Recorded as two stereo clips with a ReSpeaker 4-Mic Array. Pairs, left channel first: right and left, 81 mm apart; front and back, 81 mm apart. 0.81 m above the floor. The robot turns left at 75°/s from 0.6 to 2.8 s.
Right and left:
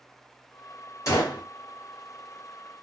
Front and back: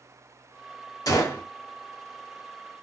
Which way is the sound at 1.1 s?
45° right.